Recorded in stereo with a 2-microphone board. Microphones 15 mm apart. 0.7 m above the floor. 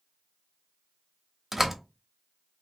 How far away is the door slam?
About 0.7 m.